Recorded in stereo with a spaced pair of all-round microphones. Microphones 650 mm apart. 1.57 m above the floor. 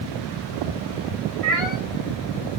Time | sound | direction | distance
1.4 | a cat meowing | 55° right (ahead or behind) | 2.5 m